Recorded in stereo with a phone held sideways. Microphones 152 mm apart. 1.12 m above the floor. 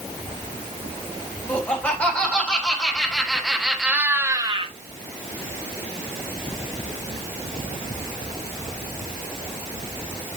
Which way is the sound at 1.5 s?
10° left (ahead or behind).